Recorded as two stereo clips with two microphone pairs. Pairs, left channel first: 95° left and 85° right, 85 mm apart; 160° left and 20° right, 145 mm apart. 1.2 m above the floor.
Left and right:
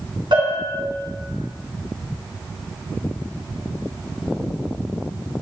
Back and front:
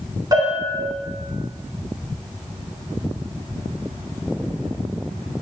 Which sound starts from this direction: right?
A bell, at 0.3 s.